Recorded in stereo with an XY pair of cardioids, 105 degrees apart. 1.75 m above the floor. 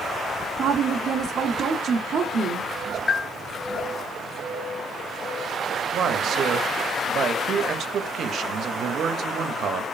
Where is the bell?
45° left, 0.6 m.